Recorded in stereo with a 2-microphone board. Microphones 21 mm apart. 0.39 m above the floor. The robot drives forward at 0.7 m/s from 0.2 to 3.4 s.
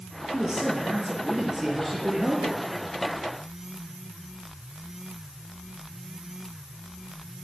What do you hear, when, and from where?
0.3 s a man speaking: 20° right (ahead or behind), 8 m; by 2.6 s 25° right (ahead or behind), 6.5 m